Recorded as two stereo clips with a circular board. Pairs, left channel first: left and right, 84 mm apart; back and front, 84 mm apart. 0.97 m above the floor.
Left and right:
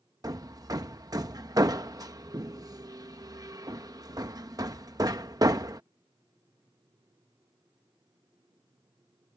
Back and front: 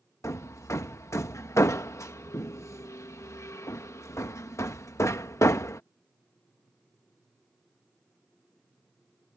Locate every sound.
0.2 s hammering: 125° right